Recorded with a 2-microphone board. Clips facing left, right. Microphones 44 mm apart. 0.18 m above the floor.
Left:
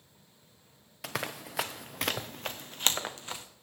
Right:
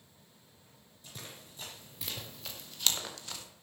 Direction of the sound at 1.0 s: 70° left (ahead or behind).